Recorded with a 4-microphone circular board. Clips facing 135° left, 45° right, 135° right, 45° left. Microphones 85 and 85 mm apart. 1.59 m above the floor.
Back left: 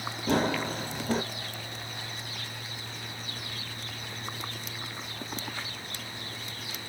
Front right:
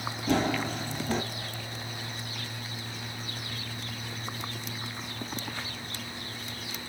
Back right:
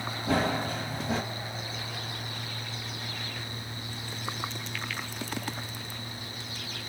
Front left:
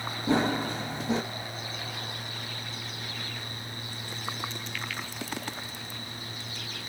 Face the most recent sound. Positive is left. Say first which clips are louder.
# even, front left 2 dB
turn(degrees=105)